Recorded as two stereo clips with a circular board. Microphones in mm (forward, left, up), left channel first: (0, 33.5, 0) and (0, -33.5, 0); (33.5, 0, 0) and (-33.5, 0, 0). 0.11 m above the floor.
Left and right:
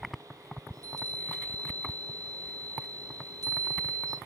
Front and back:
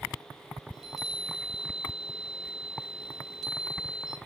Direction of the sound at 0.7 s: 85° right.